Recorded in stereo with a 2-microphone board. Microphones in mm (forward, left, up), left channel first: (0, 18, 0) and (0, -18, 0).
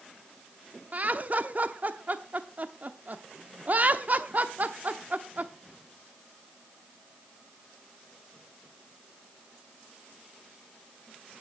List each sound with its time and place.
0.9 s laughter: 45° right (ahead or behind), 0.9 m